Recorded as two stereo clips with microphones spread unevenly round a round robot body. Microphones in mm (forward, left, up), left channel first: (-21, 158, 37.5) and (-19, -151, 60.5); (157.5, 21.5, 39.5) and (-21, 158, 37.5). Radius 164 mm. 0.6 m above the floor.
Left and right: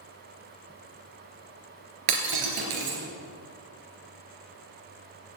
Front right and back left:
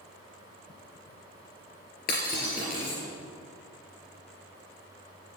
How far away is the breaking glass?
About 3 m.